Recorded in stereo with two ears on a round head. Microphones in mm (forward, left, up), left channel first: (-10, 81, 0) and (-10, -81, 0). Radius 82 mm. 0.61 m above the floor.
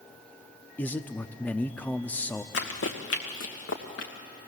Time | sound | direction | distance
0.8 | a man speaking | 10° left (ahead or behind) | 0.7 m
2.5 | running footsteps | 70° left (ahead or behind) | 2 m